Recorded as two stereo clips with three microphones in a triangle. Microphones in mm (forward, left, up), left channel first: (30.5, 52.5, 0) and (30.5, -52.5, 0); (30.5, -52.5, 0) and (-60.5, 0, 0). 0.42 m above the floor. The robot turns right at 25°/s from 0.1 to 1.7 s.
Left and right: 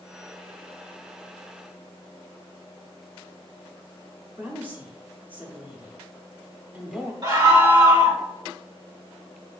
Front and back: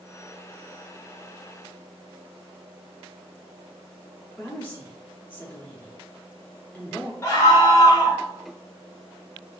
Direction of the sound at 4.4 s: 55° right.